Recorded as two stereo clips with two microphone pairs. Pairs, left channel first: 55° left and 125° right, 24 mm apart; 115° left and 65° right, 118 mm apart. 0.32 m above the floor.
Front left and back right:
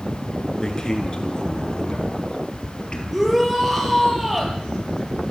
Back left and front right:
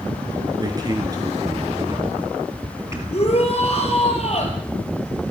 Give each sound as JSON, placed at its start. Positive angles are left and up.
{"t": 0.6, "sound": "a man speaking", "azimuth_deg": -5, "distance_m": 5.0}
{"t": 3.1, "sound": "a shout", "azimuth_deg": 155, "distance_m": 6.0}